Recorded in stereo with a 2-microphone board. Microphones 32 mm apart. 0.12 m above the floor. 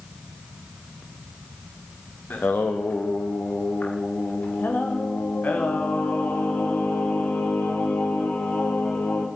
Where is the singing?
65° left (ahead or behind), 5.5 m.